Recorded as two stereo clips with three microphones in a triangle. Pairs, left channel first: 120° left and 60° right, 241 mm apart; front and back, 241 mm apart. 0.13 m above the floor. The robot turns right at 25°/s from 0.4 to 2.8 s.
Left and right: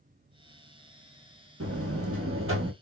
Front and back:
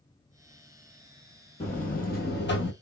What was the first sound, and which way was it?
A buzzer, 60° right.